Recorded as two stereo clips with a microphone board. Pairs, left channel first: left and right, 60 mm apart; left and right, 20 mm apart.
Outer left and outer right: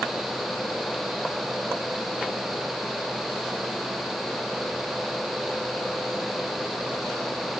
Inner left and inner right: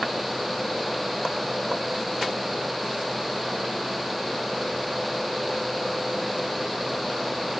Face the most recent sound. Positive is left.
No sound to turn to.